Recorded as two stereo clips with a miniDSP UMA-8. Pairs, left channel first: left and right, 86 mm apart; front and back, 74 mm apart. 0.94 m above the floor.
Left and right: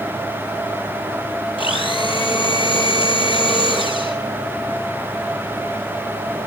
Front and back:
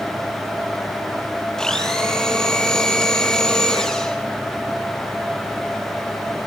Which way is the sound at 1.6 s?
85° left.